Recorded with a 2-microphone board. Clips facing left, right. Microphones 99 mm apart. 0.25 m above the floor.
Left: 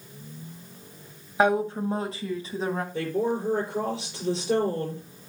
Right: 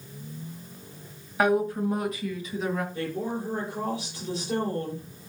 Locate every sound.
1.4 s a woman speaking: 25° left (ahead or behind), 1.4 m; by 2.8 s 35° left (ahead or behind), 2 m
2.9 s a woman speaking: 75° left (ahead or behind), 6 m